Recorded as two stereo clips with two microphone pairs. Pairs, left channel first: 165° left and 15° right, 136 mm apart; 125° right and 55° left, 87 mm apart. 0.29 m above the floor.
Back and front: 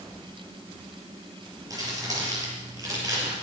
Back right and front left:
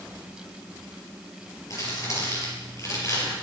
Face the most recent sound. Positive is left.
turn(degrees=-80)